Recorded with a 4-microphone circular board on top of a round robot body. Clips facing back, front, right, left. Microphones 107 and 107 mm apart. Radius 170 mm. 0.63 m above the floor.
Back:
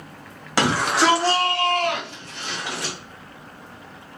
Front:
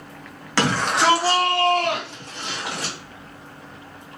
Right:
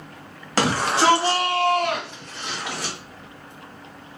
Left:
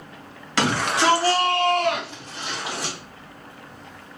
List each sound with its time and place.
0.6 s a shout: 110° right, 1.4 m; by 2.9 s 25° left, 1.9 m